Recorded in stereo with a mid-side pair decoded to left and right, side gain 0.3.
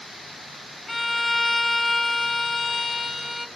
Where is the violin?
10° left, 0.7 m.